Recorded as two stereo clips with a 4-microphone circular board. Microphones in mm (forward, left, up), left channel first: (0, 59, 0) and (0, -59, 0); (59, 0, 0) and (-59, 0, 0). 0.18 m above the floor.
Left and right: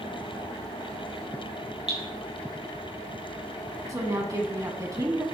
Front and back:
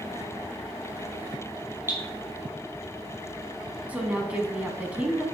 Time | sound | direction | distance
1.9 | dripping | 110° right | 4 m
3.9 | a woman speaking | 115° right | 1.1 m